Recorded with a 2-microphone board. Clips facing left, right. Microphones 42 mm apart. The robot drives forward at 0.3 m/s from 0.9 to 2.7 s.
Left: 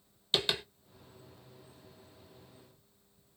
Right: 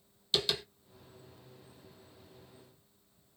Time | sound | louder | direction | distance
0.3 | tapping | left 1 dB | 30° left (ahead or behind) | 1.1 m